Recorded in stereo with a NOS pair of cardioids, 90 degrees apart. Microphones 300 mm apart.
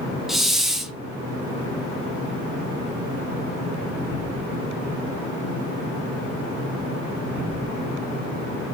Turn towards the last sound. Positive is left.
turn(degrees=0)